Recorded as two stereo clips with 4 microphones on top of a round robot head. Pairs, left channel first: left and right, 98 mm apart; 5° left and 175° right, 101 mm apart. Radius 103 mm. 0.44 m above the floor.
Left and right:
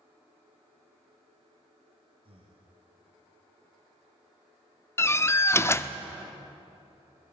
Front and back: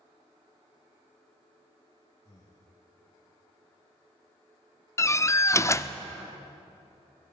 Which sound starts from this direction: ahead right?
Breathing, at 2.2 s.